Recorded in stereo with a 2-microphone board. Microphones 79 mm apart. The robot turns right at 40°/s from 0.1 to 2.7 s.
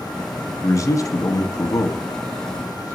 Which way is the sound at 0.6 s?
60° left.